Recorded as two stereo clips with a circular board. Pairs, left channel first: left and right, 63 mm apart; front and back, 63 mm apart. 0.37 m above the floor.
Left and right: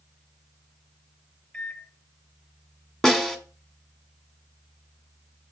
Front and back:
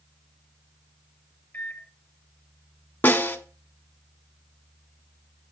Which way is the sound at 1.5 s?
25° left.